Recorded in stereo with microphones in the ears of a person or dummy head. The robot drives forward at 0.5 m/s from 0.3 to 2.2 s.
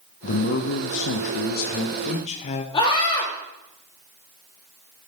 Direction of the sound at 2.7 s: 30° left (ahead or behind).